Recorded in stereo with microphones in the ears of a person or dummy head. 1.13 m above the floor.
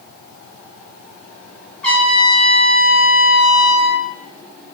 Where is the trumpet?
5° left (ahead or behind), 0.9 m.